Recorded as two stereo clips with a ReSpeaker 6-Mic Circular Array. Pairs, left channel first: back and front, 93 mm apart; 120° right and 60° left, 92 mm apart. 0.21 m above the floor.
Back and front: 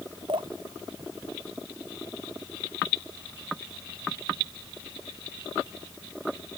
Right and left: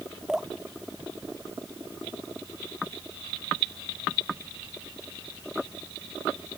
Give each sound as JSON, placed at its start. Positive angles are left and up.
{"t": 0.3, "sound": "dripping", "azimuth_deg": -25}